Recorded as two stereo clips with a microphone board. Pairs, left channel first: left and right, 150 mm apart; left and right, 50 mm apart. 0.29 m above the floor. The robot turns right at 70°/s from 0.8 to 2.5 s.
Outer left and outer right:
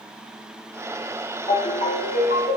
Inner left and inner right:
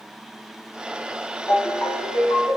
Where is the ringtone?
25° left, 3.5 m; by 2.6 s 95° left, 3.5 m.